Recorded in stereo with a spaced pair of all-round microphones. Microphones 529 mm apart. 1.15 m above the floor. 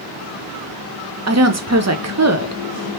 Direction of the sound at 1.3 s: 30° right (ahead or behind).